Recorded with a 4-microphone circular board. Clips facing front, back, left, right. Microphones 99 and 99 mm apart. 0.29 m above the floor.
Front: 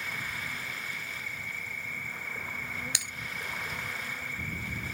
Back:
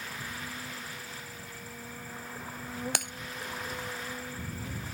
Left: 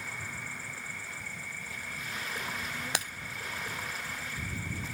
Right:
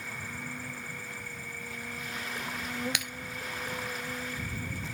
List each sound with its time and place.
0.0 s an insect: 130° right
3.0 s breaking glass: 145° left